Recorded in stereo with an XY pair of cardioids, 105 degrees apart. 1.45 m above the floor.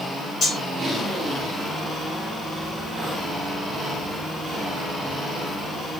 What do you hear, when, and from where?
0.4 s cutlery clinking: 45° left, 1.8 m